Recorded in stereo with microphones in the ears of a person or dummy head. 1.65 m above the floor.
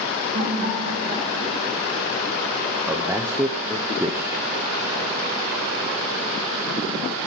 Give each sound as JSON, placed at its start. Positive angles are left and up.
{"t": 0.3, "sound": "laughter", "side_deg": -40, "distance_m": 8.0}
{"t": 2.9, "sound": "a man speaking", "side_deg": -15, "distance_m": 1.0}